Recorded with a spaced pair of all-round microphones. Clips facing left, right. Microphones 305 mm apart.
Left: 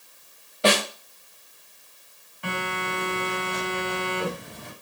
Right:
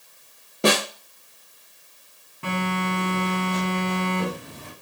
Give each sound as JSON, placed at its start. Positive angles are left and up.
{"t": 0.6, "sound": "a snare drum", "side_deg": -55, "distance_m": 0.8}
{"t": 2.4, "sound": "a phone buzzing", "side_deg": -60, "distance_m": 2.0}